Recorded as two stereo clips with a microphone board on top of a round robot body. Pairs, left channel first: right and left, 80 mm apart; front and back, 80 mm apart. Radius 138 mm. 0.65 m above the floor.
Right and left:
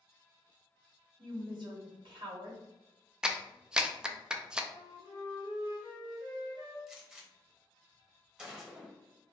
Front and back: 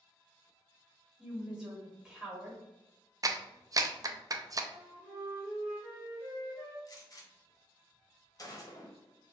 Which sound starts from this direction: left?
A woman speaking, at 1.2 s.